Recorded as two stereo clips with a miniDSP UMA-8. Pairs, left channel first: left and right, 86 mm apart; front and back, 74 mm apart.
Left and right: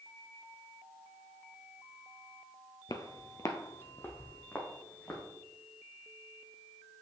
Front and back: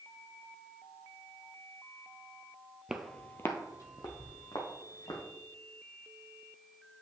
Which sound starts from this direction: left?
Footsteps, at 2.9 s.